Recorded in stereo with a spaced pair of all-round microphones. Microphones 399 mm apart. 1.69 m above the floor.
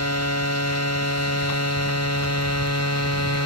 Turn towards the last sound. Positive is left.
turn(degrees=40)  # may be behind; listen again after turning